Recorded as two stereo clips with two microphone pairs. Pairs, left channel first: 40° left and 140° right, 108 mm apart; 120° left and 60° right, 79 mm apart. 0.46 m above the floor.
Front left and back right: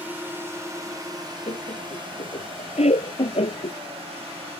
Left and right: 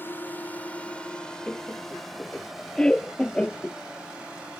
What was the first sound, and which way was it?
A drone, 155° left.